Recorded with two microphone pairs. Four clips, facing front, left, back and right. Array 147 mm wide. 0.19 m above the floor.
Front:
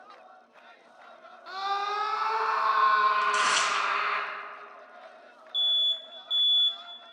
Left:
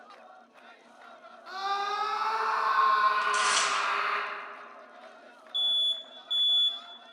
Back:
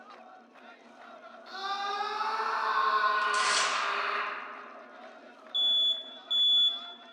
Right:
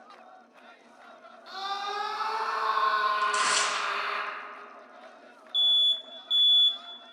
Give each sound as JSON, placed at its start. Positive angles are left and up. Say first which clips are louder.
{"t": 1.5, "sound": "a scream", "louder": "left 3 dB, front 4 dB", "azimuth_deg": 25, "distance_m": 1.3}
{"t": 3.2, "sound": "tearing paper", "louder": "right 1 dB, front 3 dB", "azimuth_deg": -40, "distance_m": 1.4}
{"t": 5.5, "sound": "an alarm", "louder": "right 4 dB, front 1 dB", "azimuth_deg": 70, "distance_m": 0.7}